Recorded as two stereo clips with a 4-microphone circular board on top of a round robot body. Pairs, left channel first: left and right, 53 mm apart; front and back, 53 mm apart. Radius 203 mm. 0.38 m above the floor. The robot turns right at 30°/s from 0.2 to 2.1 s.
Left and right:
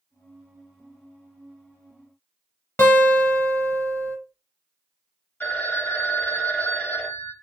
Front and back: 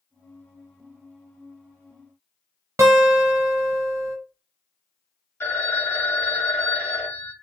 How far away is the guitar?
About 0.6 m.